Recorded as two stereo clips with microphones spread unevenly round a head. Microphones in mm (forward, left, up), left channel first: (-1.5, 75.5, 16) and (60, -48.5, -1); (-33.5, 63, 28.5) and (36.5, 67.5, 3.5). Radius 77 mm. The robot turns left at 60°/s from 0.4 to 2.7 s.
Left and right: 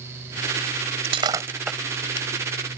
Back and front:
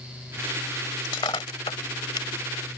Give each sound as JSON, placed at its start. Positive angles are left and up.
{"t": 1.0, "sound": "breaking glass", "azimuth_deg": -115}